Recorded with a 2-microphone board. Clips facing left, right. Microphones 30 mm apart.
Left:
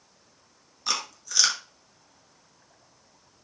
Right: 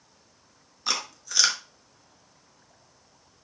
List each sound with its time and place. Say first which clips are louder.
0.9 s chewing: even; 10° right (ahead or behind), 1.0 m